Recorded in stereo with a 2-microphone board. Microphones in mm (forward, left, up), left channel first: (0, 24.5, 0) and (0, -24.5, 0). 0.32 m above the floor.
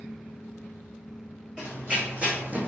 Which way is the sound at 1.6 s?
25° right (ahead or behind).